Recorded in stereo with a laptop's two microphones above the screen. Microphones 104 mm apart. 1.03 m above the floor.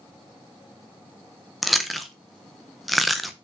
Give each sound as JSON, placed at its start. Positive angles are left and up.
{"t": 1.6, "sound": "chewing", "side_deg": 0, "distance_m": 0.6}